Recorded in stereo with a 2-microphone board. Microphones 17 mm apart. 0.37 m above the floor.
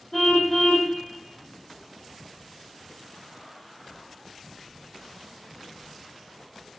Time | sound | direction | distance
0.1 | a car horn | 20° left (ahead or behind) | 9 m